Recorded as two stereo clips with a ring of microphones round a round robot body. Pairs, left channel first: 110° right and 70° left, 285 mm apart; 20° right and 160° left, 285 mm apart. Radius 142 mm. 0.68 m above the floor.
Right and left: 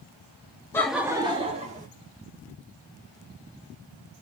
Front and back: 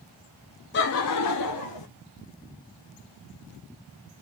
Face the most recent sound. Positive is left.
turn(degrees=5)